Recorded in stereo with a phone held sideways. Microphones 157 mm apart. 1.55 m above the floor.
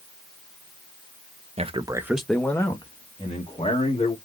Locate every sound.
1.6 s a man speaking: 45° right (ahead or behind), 0.7 m; by 4.2 s 40° left (ahead or behind), 2.0 m